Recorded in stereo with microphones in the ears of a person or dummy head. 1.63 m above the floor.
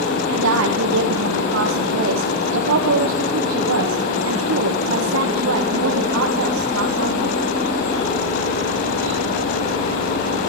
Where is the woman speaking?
80° right, 1.5 m.